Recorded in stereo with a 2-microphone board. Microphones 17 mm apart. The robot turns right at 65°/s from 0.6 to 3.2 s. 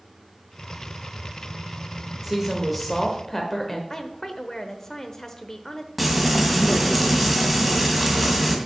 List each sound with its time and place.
2.2 s a woman speaking: 30° right, 0.9 m; by 3.8 s 30° left, 0.9 m
3.9 s a woman speaking: 30° left (ahead or behind), 0.9 m
6.0 s frying: centre (ahead or behind), 1.8 m